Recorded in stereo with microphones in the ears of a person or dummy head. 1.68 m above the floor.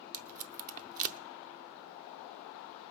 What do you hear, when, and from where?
0.1 s tape being pulled: 40° right (ahead or behind), 0.7 m